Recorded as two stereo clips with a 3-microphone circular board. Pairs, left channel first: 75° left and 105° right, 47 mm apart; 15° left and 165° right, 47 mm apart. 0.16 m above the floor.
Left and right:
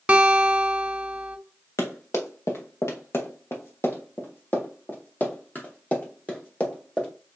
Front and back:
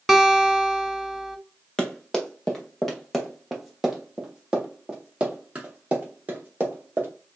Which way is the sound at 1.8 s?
90° left.